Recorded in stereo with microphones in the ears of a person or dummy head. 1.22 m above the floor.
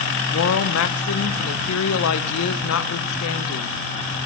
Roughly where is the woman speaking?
Left.